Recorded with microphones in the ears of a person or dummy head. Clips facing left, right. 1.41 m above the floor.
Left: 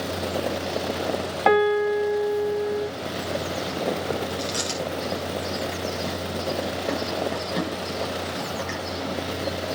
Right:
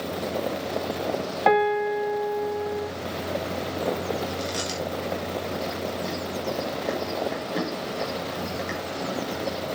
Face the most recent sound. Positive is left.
turn(degrees=-5)  # may be behind; listen again after turning